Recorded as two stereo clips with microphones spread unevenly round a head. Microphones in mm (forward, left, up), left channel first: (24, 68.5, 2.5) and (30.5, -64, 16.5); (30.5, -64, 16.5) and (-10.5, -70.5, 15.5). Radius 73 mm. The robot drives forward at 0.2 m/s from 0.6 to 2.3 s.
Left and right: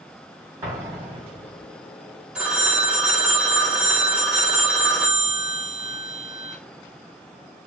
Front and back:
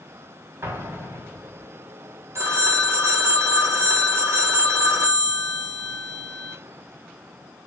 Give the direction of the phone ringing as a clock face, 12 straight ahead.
6 o'clock.